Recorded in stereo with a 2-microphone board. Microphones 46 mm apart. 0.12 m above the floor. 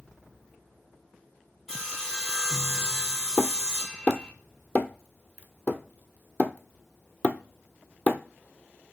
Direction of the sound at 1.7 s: 5° left (ahead or behind).